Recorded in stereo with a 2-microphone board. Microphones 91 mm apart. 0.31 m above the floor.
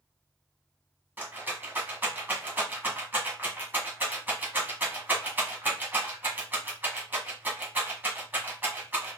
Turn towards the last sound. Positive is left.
turn(degrees=-20)  # may be behind; listen again after turning